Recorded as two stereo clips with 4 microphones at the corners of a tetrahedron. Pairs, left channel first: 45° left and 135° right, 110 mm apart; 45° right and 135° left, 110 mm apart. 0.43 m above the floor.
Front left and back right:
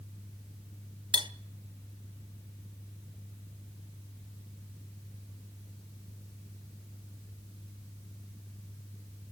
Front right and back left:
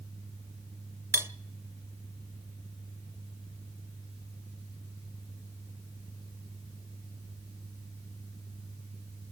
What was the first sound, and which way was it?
Cutlery clinking, 165° right.